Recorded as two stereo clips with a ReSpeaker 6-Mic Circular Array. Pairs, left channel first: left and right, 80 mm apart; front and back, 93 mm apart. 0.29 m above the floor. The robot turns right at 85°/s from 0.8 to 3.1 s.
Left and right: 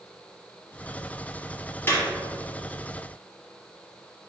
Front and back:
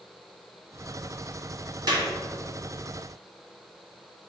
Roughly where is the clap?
Behind left.